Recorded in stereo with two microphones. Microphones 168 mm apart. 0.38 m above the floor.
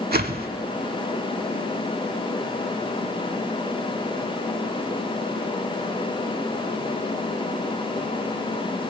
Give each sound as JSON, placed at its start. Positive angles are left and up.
{"t": 0.1, "sound": "a whoosh", "side_deg": -65, "distance_m": 0.5}